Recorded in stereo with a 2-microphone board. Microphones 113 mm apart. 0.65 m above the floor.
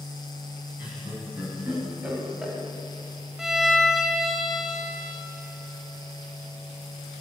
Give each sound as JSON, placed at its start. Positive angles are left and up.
{"t": 0.8, "sound": "laughter", "side_deg": -10, "distance_m": 5.0}
{"t": 3.4, "sound": "a violin", "side_deg": -5, "distance_m": 0.8}